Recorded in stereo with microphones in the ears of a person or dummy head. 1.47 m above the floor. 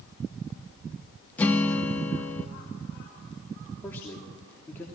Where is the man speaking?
15° left (ahead or behind), 3 m.